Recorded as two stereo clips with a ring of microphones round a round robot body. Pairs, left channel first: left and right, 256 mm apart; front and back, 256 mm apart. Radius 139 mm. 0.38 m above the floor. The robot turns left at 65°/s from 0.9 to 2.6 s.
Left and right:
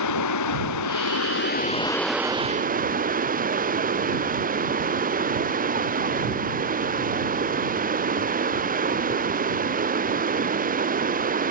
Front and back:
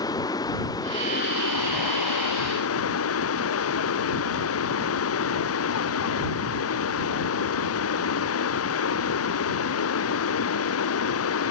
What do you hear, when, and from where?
0.0 s running water: 80° left; by 11.5 s 30° right